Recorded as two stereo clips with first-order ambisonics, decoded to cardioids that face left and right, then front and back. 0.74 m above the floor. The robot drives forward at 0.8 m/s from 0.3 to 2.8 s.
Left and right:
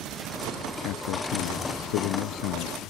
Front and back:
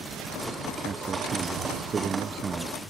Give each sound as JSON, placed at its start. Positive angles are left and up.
{"t": 0.8, "sound": "a man speaking", "azimuth_deg": 110}